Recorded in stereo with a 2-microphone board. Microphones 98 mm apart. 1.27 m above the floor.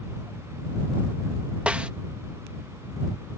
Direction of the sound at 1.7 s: 15° right (ahead or behind).